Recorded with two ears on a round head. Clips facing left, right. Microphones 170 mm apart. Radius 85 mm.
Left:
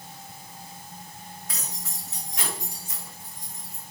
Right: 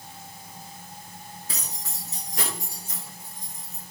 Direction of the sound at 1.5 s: 30° right (ahead or behind).